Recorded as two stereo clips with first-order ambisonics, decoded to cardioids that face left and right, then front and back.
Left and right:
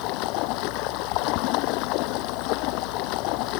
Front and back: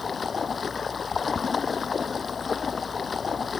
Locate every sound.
0.0 s running water: 70° left